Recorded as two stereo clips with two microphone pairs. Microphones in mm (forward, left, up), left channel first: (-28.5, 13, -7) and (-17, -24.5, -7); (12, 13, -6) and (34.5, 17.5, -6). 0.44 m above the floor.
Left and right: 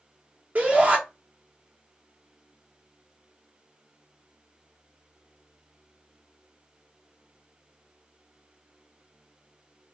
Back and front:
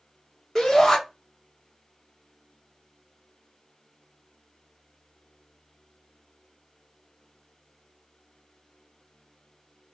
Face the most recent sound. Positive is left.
turn(degrees=-100)